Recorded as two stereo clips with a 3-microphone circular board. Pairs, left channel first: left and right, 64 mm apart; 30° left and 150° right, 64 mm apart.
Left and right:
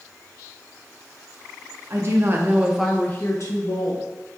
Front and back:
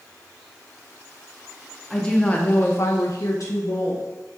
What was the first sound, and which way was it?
A woman speaking, 50° right.